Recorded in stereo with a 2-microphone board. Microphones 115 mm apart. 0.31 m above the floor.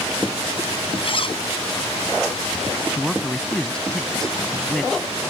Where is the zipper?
50° left (ahead or behind).